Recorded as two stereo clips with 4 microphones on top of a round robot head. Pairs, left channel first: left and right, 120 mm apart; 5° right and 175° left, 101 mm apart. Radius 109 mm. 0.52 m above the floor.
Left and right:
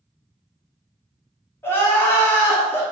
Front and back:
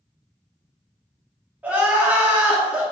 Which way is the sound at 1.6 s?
125° left.